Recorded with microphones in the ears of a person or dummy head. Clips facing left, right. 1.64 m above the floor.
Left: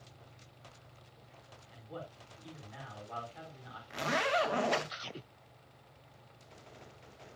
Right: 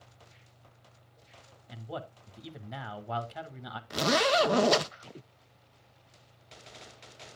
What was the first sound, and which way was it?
A man speaking, 70° right (ahead or behind).